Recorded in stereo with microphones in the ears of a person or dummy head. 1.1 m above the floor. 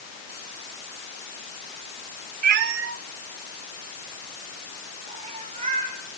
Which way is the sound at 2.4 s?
50° right (ahead or behind).